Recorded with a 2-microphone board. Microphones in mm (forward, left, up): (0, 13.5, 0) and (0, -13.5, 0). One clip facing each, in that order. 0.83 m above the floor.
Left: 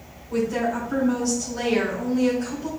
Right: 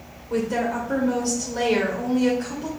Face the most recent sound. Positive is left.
turn(degrees=-60)  # may be behind; listen again after turning